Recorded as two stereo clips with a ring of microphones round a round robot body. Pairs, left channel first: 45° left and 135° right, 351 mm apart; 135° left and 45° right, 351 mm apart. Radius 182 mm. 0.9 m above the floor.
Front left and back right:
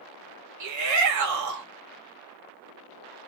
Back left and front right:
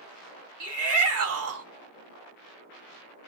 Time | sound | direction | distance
0.6 | a shout | 95° right | 1.3 m